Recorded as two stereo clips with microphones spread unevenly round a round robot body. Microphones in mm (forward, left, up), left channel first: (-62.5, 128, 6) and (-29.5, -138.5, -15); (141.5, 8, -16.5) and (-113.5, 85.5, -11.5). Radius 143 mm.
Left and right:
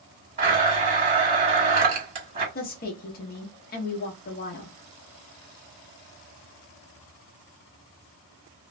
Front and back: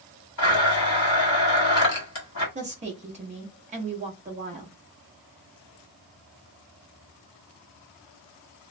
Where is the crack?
I don't hear a crack.